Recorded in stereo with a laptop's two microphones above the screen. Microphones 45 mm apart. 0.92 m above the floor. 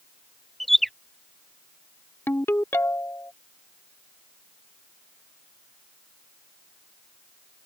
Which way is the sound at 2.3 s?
60° left (ahead or behind).